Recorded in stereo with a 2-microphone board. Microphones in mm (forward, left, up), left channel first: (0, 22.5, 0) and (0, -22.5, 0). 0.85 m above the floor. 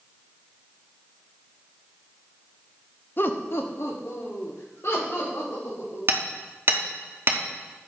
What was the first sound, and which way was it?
Laughter, 50° left (ahead or behind).